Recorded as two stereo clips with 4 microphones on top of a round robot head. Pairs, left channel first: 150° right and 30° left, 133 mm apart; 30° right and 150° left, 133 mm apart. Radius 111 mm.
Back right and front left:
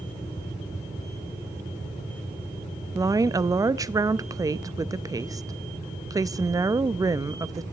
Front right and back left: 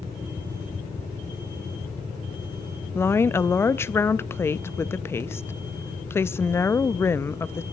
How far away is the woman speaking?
About 0.6 m.